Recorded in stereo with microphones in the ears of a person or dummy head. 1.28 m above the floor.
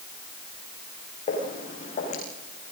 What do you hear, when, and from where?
1.3 s footsteps: 35° left (ahead or behind), 5.5 m